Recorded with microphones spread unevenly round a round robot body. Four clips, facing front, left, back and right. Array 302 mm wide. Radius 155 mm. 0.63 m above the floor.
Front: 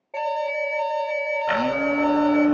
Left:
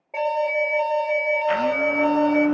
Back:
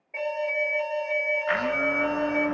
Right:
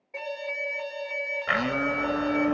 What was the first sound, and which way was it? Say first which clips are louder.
An alarm: left 12 dB, front 3 dB; 55° left.